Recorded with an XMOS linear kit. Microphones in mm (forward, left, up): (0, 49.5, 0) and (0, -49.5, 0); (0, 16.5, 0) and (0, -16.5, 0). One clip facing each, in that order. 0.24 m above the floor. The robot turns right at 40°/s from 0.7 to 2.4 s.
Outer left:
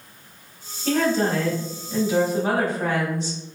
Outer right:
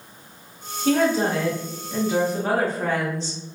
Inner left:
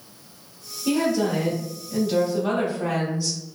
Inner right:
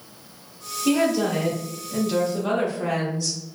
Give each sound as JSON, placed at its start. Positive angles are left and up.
{"t": 0.8, "sound": "a woman speaking", "side_deg": -10, "distance_m": 0.9}